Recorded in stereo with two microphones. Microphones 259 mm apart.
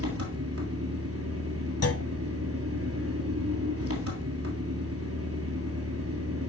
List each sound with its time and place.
0.0 s an engine running: 60° right (ahead or behind), 2.0 m
1.8 s a clunk: 65° left (ahead or behind), 0.6 m